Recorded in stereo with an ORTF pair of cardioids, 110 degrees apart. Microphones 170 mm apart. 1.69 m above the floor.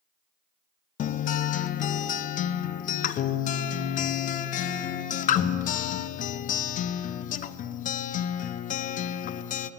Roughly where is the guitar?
Ahead left.